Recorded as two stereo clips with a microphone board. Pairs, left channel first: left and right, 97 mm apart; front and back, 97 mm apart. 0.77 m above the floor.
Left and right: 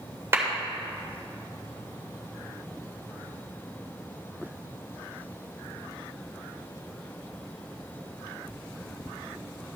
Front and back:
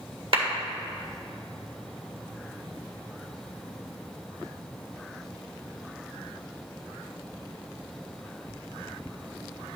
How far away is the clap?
About 1.8 m.